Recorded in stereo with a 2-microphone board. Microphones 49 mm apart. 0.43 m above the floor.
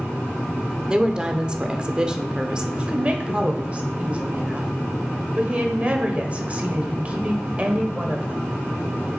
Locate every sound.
0.9 s a woman speaking: 20° right (ahead or behind), 0.8 m
2.8 s a woman speaking: 30° right (ahead or behind), 1.3 m